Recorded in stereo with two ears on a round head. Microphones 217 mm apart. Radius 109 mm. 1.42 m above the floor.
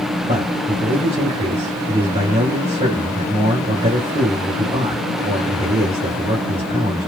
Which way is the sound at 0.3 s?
25° right (ahead or behind).